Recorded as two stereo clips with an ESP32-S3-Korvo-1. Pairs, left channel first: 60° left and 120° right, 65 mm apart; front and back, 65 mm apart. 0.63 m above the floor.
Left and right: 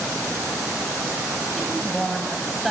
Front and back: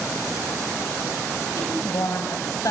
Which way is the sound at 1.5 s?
30° right.